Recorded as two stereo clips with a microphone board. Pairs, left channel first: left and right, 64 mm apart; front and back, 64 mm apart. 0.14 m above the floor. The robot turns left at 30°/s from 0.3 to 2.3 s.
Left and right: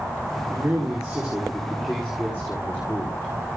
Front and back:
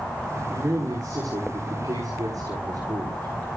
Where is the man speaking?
150° right, 7 m; by 3.3 s 155° left, 7 m.